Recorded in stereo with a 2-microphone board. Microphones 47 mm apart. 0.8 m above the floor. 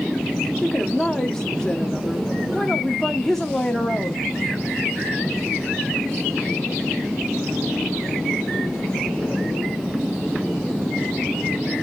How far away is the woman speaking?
About 1.2 m.